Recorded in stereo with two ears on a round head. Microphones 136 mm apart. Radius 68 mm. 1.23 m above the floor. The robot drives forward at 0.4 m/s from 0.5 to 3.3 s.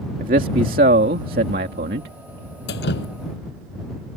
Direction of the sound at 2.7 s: 80° left.